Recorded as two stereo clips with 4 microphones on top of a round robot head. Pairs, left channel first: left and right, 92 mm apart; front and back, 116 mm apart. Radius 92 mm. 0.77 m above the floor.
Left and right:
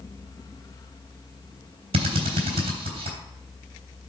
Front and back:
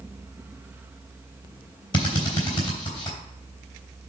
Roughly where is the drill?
Ahead right.